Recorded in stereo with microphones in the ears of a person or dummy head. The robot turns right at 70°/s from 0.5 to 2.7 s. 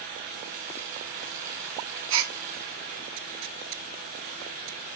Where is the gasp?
45° right (ahead or behind), 0.7 m; by 2.4 s 55° right (ahead or behind), 0.7 m.